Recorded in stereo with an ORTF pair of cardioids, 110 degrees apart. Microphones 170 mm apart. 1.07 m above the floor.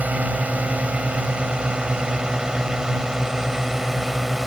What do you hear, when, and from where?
0.0 s a drone: 10° right; by 4.5 s straight ahead